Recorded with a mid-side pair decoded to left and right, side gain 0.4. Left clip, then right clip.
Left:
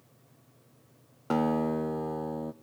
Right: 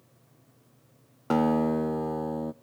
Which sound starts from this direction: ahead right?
A guitar, at 1.3 s.